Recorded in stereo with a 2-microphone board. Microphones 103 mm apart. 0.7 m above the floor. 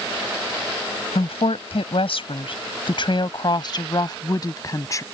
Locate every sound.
1.1 s a woman speaking: 75° left (ahead or behind); by 5.0 s 35° left (ahead or behind)